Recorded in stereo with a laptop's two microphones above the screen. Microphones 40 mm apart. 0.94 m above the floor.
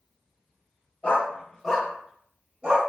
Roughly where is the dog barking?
Left.